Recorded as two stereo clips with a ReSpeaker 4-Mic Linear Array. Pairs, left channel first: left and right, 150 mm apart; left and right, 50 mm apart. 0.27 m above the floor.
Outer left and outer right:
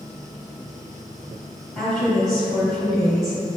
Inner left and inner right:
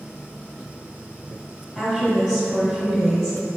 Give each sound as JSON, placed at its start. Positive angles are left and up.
{"t": 1.8, "sound": "a woman speaking", "side_deg": 0, "distance_m": 1.4}